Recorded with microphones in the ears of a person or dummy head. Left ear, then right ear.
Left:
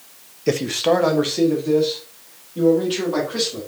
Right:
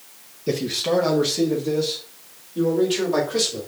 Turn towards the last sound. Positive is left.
turn(degrees=5)  # may be behind; listen again after turning